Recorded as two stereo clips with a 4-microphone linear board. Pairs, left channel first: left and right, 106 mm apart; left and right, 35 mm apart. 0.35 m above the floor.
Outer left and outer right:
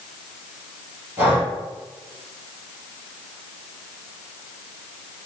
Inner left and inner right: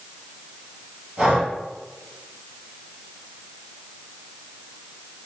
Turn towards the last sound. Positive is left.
turn(degrees=-20)  # may be behind; listen again after turning